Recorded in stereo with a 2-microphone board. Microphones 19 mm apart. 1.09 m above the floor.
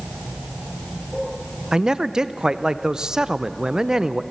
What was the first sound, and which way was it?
A man speaking, 30° right (ahead or behind).